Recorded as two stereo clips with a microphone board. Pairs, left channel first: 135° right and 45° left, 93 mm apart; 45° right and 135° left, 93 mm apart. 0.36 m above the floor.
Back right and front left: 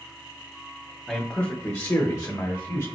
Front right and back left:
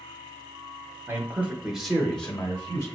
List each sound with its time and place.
1.1 s a man speaking: 150° left, 0.9 m; by 2.9 s 105° right, 1.2 m